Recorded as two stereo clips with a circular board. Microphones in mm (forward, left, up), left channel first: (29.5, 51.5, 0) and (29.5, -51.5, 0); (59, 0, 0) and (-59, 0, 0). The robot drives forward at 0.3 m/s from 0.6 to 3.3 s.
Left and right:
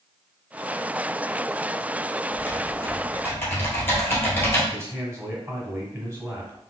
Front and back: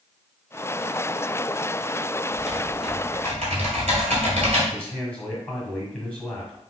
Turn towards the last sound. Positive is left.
turn(degrees=-65)